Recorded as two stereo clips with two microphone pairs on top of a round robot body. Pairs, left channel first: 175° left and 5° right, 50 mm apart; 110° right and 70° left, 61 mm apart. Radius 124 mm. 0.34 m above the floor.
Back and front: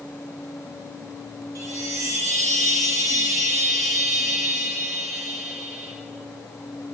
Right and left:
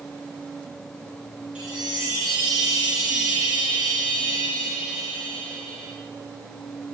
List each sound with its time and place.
1.6 s a chime: 5° right, 2.5 m